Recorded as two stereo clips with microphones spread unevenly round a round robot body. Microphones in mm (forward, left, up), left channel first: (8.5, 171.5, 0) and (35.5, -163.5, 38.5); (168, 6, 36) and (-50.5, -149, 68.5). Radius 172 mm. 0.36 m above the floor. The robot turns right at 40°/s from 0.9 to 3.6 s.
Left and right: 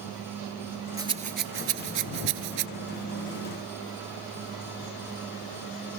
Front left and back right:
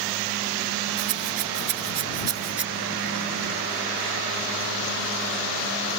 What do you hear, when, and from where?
1.0 s a rattle: 165° right; by 2.7 s 100° right